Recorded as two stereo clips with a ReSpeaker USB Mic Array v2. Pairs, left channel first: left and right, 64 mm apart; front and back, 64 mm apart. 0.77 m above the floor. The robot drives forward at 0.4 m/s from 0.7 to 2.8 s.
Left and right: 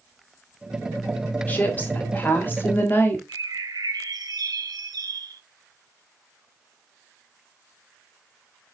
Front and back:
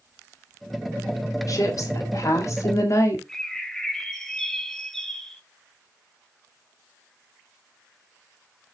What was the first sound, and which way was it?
A woman speaking, 25° left.